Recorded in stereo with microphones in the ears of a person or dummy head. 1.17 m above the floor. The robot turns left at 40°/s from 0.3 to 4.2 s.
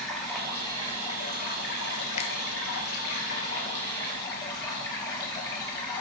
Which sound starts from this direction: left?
A finger snap, at 2.2 s.